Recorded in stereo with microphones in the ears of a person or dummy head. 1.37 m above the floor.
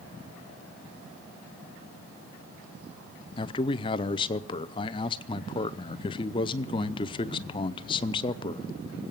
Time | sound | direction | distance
3.4 | a man speaking | 30° left (ahead or behind) | 0.6 m